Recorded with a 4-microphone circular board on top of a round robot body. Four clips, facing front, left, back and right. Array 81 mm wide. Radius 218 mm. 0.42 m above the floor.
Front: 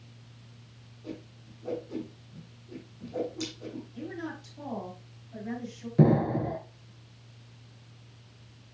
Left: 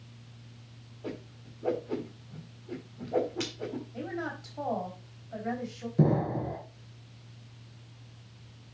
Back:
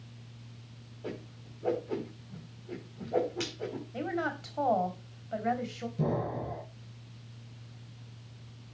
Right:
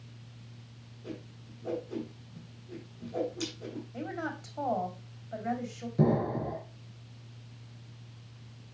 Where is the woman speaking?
165° right, 3.5 m.